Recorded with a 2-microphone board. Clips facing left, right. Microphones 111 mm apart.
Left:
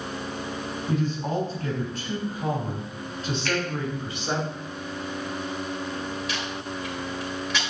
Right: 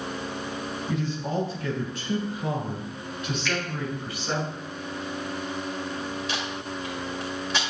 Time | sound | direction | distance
0.9 | a man speaking | 50° left (ahead or behind) | 3.5 m
3.5 | a finger snap | 50° left (ahead or behind) | 2.5 m
6.3 | tape being pulled | 30° right (ahead or behind) | 1.9 m